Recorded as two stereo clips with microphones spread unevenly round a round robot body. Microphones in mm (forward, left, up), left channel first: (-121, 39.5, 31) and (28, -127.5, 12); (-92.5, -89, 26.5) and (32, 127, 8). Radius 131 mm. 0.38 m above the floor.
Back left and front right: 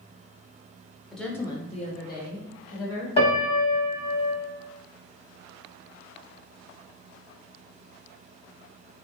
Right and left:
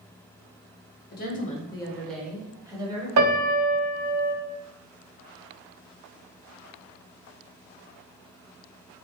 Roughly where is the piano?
Ahead left.